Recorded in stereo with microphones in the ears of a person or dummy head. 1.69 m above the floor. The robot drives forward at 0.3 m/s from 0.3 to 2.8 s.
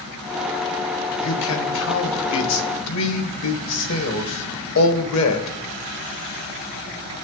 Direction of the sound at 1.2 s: 75° left (ahead or behind).